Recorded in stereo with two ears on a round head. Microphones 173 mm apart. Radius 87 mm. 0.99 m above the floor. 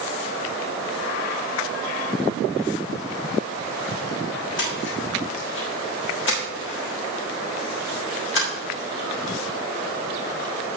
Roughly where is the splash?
Left.